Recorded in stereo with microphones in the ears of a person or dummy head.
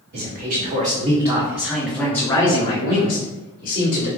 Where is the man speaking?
55° right (ahead or behind), 1.2 m; by 4.1 s 45° left (ahead or behind), 1.8 m.